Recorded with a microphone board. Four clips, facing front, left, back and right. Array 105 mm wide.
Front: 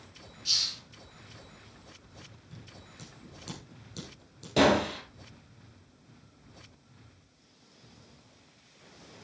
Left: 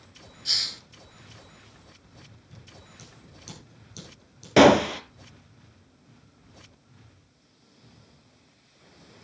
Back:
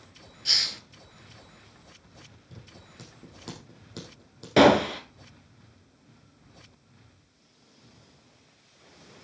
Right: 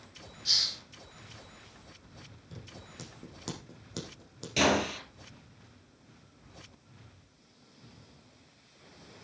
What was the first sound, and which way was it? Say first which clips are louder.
A hiss: left 3 dB, back 8 dB; 170° left.